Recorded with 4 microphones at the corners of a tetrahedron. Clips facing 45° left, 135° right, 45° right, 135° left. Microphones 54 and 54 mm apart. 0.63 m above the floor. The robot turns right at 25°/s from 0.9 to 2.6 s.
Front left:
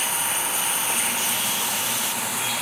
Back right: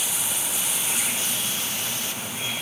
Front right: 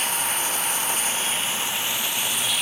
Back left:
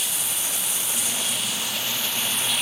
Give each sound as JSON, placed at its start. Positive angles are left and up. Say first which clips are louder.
{"t": 0.0, "sound": "running water", "louder": "front left 5 dB, front right 6 dB", "azimuth_deg": 0}